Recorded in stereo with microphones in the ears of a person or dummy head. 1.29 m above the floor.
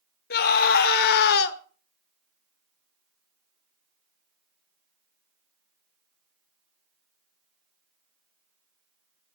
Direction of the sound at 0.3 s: 50° left (ahead or behind).